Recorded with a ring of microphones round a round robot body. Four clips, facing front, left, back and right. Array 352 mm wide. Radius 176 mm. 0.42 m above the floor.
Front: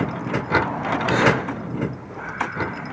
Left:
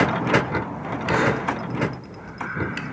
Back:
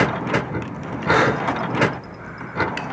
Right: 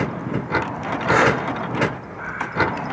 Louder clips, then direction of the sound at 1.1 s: Right 4 dB, back 2 dB; 125° right.